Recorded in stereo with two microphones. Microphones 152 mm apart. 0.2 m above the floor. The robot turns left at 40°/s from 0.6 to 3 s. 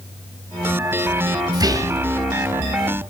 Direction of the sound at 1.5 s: 25° right (ahead or behind).